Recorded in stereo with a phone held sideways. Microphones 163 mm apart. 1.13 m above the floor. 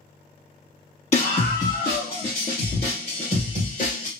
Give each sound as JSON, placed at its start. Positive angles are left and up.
{"t": 1.1, "sound": "a scream", "side_deg": 40, "distance_m": 1.0}